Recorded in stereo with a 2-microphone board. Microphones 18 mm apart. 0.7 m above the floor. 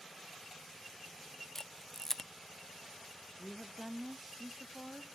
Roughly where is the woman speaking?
Centre.